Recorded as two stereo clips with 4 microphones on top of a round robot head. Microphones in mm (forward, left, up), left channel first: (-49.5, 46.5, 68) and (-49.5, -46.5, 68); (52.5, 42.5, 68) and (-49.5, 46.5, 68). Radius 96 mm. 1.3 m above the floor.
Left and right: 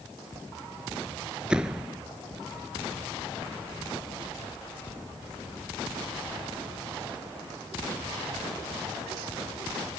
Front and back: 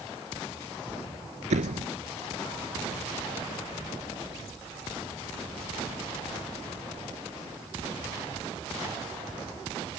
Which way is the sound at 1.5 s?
170° right.